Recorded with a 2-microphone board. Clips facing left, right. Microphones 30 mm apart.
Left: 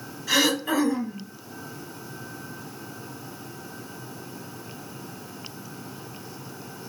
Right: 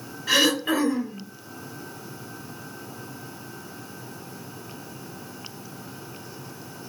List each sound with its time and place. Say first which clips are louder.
0.3 s throat clearing: right 2 dB; 30° right (ahead or behind), 1.7 m